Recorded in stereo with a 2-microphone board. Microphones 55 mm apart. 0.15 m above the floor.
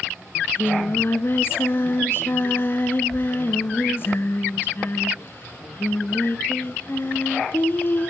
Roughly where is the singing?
Left.